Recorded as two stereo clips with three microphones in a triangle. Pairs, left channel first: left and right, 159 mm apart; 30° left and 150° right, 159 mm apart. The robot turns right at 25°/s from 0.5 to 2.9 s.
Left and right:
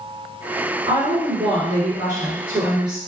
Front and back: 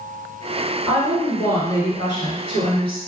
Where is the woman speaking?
55° right, 1.9 m; by 3.0 s 5° right, 1.9 m.